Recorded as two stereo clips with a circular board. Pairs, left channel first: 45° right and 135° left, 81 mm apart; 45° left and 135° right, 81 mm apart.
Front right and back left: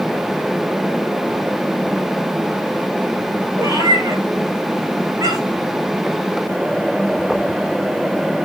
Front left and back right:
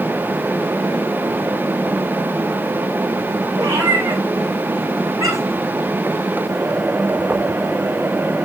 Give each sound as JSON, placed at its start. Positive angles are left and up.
{"t": 3.6, "sound": "a cat meowing", "azimuth_deg": -175, "distance_m": 10.0}